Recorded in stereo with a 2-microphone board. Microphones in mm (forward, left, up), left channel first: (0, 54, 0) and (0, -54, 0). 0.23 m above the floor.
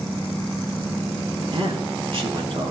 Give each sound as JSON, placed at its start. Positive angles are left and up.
{"t": 1.5, "sound": "a man speaking", "side_deg": -60, "distance_m": 3.0}